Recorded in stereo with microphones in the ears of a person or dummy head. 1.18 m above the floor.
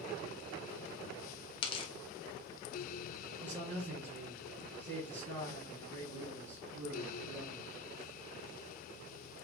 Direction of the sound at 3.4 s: 50° right (ahead or behind).